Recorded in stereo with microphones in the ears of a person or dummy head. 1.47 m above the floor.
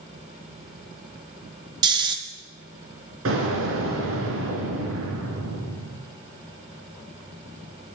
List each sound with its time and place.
1.8 s snoring: 30° right (ahead or behind), 1.3 m
3.2 s an explosion: 65° right (ahead or behind), 3.5 m